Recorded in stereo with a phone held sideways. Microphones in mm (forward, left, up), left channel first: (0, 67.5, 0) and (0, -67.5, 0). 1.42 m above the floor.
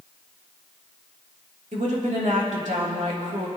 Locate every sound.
1.7 s a woman speaking: 65° right (ahead or behind), 2.5 m